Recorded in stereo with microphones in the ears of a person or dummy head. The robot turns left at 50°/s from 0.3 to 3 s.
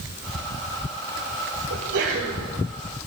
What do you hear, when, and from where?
1.7 s a sneeze: 95° right, 5.5 m; by 2.5 s 130° right, 5.5 m